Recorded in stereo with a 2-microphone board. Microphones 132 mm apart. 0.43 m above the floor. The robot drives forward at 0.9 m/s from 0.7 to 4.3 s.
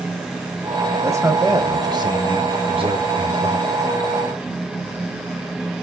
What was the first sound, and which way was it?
A man speaking, 20° right (ahead or behind).